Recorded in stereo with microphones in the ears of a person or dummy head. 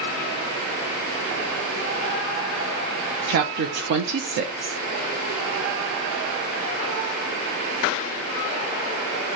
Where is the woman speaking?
50° right (ahead or behind), 0.5 m.